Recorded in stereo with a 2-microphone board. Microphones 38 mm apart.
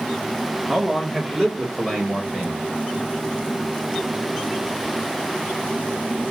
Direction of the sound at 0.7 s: 10° right (ahead or behind).